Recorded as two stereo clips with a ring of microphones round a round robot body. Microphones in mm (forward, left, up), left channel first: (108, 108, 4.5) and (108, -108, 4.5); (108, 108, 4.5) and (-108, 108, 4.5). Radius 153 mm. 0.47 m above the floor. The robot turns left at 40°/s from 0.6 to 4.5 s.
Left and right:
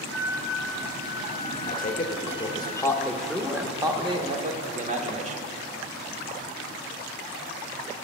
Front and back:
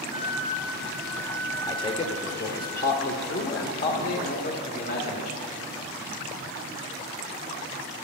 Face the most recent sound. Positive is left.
turn(degrees=-50)